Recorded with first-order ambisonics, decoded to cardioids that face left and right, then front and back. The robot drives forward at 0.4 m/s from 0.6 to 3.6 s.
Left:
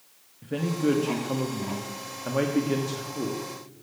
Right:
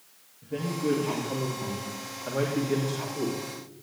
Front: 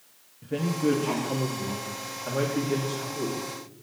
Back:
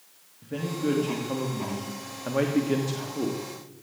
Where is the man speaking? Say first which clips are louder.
Left 3 dB, front 3 dB; 65° left, 1.3 m; by 3.8 s 145° left, 1.6 m.